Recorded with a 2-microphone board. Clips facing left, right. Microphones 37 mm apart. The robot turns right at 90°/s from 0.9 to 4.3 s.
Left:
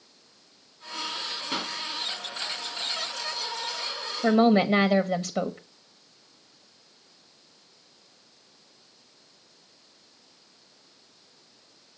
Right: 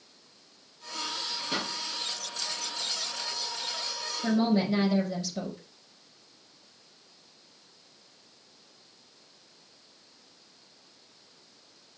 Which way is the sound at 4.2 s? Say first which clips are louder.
Left 6 dB; 50° left (ahead or behind).